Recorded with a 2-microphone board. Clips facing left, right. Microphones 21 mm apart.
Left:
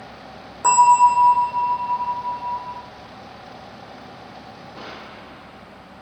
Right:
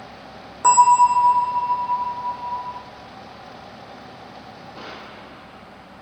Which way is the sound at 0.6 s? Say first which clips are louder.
Even; 5° right (ahead or behind).